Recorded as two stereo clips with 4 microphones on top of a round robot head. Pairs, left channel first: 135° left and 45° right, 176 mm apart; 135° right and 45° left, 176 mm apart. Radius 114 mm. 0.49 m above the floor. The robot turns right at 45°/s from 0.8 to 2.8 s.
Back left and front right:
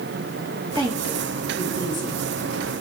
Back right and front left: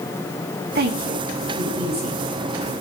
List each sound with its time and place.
0.8 s a woman speaking: 20° left, 4.5 m; by 2.2 s 85° left, 4.5 m